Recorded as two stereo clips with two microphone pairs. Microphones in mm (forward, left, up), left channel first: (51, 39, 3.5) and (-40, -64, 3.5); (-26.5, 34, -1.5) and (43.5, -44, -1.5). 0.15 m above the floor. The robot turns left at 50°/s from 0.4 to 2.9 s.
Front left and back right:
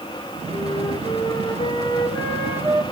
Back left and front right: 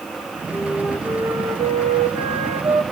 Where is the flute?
50° left, 3.5 m; by 2.8 s 65° right, 3.5 m.